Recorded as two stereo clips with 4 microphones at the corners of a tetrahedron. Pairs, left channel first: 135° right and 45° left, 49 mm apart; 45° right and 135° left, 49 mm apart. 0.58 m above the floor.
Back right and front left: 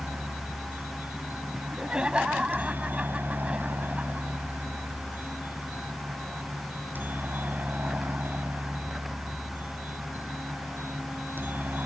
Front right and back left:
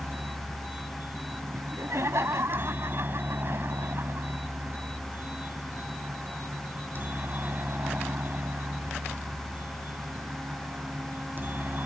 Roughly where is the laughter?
Behind left.